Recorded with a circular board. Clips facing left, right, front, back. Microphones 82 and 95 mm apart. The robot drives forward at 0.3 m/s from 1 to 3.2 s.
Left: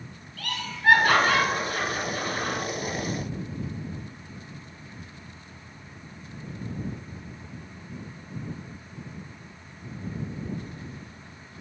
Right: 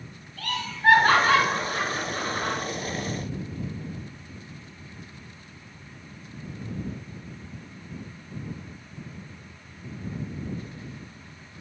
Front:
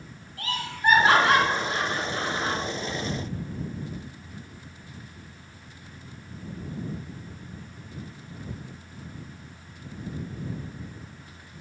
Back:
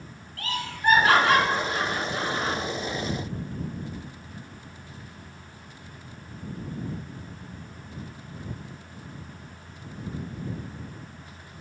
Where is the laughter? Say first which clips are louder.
Right 4 dB, front 1 dB; 65° right, 1.8 m; by 2.6 s 90° right, 1.7 m.